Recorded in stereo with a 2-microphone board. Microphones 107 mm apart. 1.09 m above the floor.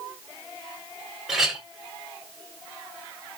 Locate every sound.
1.3 s a clink: 5° right (ahead or behind), 2.5 m